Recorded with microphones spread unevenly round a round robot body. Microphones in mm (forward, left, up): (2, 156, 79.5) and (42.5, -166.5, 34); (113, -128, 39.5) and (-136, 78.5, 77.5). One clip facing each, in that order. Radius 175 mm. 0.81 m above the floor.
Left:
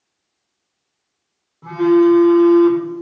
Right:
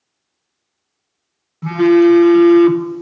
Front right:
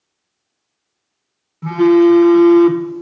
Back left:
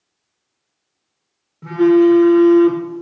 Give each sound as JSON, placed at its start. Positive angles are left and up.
{"t": 1.6, "sound": "a phone buzzing", "azimuth_deg": -115, "distance_m": 0.5}